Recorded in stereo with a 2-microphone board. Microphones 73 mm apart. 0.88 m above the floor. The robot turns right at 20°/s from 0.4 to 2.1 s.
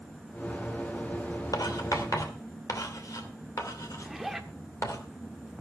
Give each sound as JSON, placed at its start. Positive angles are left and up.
{"t": 1.5, "sound": "writing", "side_deg": 60, "distance_m": 2.5}
{"t": 4.0, "sound": "a zipper", "side_deg": -5, "distance_m": 1.5}